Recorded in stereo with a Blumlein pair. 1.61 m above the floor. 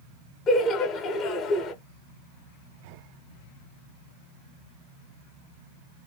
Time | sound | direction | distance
0.5 | laughter | 30° left | 0.8 m